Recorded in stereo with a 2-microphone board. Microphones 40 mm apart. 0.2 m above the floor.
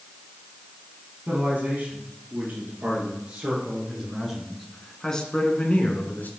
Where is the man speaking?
35° right (ahead or behind), 4.5 m; by 6.3 s 50° left (ahead or behind), 2 m.